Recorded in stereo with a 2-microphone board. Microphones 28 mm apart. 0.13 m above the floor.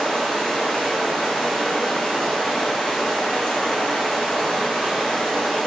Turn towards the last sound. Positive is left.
turn(degrees=20)  # may be behind; listen again after turning